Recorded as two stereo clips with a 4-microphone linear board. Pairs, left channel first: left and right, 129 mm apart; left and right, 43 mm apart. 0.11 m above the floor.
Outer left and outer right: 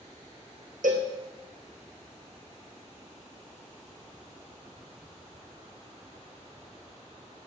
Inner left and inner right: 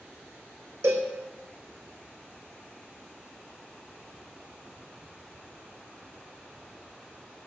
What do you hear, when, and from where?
0.8 s a cowbell: 80° right, 1.4 m